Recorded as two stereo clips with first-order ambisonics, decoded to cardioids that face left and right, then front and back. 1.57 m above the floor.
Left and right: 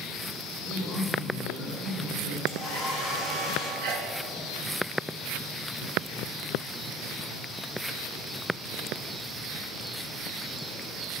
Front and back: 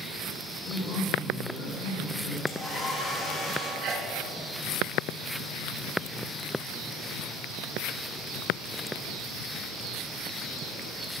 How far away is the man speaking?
About 2 m.